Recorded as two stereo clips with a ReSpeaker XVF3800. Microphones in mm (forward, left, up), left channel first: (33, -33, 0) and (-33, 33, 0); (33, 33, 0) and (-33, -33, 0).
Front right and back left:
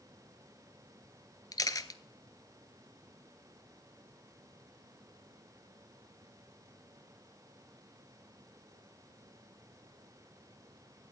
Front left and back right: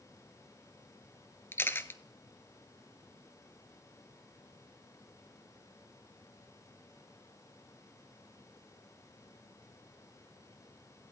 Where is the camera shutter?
10° right, 0.5 m.